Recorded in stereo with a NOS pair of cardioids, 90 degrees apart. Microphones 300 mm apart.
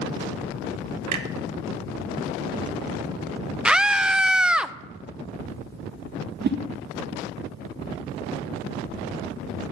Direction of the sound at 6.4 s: 35° right.